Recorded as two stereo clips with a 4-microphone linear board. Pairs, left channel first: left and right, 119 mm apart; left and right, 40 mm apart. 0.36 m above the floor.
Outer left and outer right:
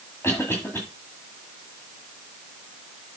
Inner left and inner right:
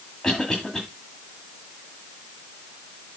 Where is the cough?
20° left (ahead or behind), 2 m.